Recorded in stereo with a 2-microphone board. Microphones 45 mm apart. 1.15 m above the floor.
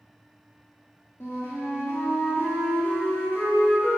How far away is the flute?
About 1.4 m.